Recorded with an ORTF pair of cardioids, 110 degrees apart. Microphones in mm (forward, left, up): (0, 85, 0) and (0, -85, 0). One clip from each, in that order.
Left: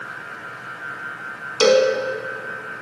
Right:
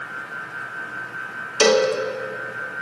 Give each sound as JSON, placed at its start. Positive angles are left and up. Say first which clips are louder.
{"t": 1.6, "sound": "a cowbell", "louder": "left 2 dB", "azimuth_deg": -25, "distance_m": 2.0}